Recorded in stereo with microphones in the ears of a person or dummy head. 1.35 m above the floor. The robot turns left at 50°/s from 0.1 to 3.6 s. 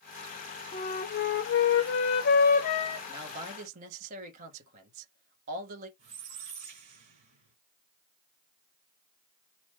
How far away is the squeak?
About 2.5 m.